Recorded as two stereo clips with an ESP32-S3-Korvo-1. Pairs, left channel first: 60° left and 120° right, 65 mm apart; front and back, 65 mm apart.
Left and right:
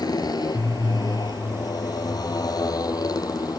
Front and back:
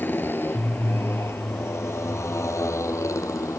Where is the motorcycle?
60° left; by 3.6 s 40° left.